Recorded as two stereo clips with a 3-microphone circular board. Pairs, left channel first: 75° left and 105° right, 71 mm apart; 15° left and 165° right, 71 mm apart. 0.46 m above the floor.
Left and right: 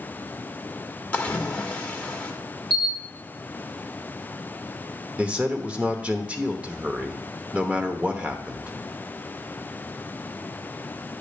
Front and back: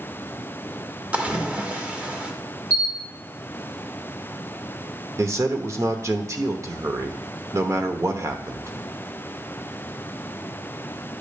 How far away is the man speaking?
About 0.9 m.